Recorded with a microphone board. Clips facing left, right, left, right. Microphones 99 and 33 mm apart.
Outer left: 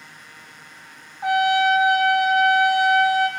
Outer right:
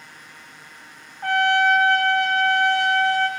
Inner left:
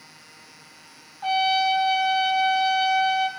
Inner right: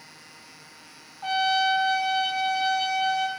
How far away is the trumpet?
About 1.3 m.